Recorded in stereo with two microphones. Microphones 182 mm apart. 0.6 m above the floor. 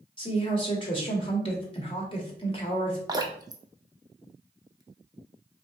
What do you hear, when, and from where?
0.2 s a woman speaking: 30° left (ahead or behind), 1.3 m
3.1 s dripping: 20° right (ahead or behind), 0.6 m